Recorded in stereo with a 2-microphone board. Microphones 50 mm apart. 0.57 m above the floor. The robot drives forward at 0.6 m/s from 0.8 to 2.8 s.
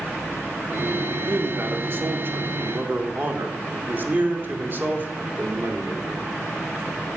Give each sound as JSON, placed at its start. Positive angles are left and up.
{"t": 1.3, "sound": "a man speaking", "side_deg": -50, "distance_m": 1.6}